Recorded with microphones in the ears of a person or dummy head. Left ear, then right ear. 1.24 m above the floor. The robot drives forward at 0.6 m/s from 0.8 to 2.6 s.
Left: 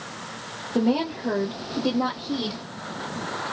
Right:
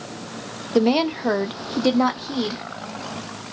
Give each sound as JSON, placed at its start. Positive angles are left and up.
{"t": 0.8, "sound": "a woman speaking", "side_deg": -60, "distance_m": 0.7}